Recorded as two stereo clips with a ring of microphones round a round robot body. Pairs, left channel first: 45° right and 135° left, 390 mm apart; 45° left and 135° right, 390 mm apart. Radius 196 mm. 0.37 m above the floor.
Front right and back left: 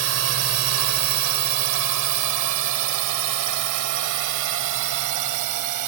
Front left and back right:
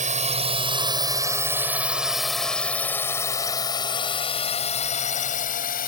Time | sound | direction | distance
0.0 | a drone | 165° left | ?